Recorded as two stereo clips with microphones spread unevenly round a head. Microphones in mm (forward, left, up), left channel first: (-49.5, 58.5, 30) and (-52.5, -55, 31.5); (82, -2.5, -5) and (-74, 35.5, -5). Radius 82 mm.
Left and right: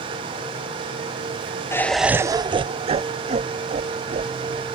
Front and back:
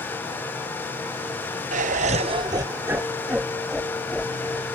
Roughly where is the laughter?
Behind left.